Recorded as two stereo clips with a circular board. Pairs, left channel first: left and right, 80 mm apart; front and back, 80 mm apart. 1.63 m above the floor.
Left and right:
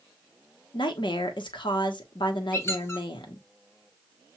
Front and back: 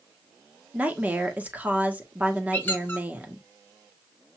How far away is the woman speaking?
About 1.2 m.